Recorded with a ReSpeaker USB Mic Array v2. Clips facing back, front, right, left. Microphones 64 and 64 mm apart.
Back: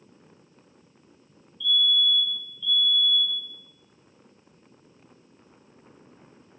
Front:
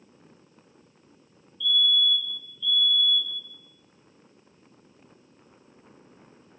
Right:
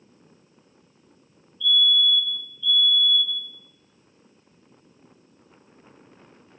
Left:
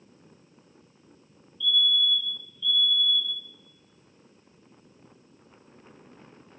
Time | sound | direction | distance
1.6 | a fire alarm | 105° right | 2.5 m